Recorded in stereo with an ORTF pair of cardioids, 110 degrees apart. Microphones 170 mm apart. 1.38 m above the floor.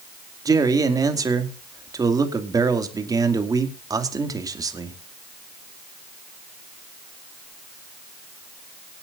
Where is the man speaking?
20° right, 2.5 m.